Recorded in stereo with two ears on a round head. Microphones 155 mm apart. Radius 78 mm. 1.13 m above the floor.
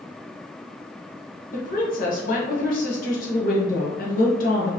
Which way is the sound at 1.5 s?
50° left (ahead or behind).